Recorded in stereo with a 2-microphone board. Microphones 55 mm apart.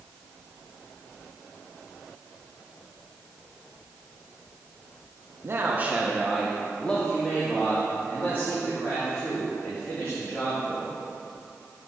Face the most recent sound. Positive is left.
turn(degrees=50)  # may be behind; listen again after turning